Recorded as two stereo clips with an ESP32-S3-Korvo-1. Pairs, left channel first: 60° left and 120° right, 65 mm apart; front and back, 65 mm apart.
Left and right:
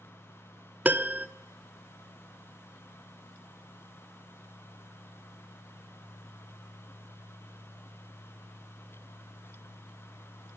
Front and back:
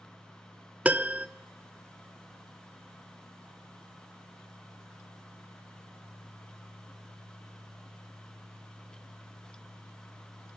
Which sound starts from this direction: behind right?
A piano, at 0.8 s.